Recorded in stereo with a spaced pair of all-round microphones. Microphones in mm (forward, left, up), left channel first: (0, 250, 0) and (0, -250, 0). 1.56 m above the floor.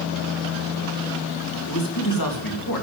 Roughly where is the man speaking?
Left.